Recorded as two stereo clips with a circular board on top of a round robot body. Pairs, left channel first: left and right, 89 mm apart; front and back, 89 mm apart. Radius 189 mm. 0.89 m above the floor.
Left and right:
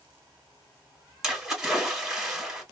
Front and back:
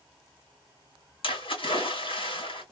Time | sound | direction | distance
1.2 | a splash | 5° right | 2.5 m